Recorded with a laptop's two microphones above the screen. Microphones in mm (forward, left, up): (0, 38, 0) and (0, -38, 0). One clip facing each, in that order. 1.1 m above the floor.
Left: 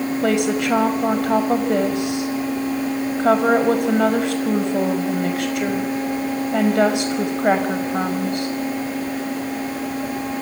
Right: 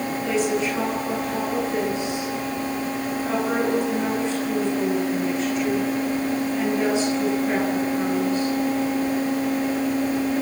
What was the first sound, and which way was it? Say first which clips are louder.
A woman speaking: left 3 dB; 70° left (ahead or behind).